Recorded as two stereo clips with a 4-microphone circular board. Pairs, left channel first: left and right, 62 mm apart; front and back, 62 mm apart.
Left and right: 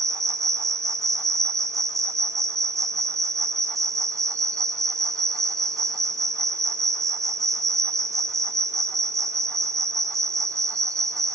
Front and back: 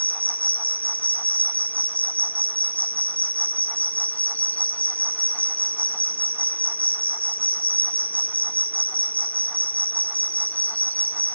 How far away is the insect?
About 1.5 m.